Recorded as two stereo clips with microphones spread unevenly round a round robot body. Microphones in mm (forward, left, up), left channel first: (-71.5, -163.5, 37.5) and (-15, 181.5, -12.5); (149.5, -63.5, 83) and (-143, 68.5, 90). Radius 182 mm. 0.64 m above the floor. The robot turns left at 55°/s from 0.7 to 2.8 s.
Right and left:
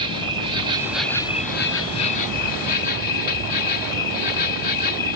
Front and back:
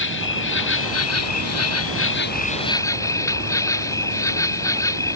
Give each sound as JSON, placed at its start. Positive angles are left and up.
{"t": 0.0, "sound": "an insect", "azimuth_deg": 15}